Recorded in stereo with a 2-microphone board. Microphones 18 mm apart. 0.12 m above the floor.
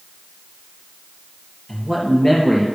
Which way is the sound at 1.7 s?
50° left (ahead or behind).